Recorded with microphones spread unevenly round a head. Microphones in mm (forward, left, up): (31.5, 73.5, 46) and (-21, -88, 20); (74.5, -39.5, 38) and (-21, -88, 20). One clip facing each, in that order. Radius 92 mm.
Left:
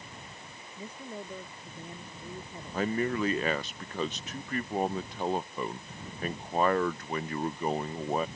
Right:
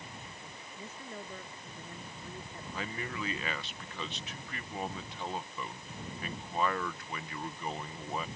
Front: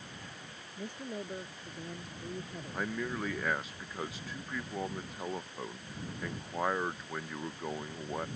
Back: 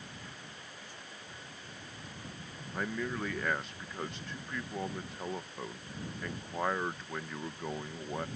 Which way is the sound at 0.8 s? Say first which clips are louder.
Left 4 dB, front 10 dB; 5° right.